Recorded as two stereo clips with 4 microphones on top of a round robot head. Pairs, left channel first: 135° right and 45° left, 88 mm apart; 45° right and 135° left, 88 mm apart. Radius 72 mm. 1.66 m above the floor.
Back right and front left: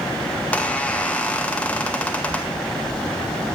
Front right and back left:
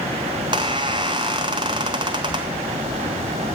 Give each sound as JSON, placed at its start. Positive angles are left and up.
{"t": 0.4, "sound": "a squeak", "azimuth_deg": 150, "distance_m": 0.5}